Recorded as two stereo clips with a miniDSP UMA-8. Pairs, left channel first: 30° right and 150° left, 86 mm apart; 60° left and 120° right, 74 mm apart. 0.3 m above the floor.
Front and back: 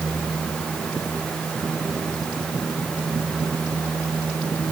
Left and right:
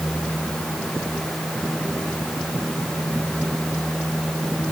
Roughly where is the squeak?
I don't hear a squeak.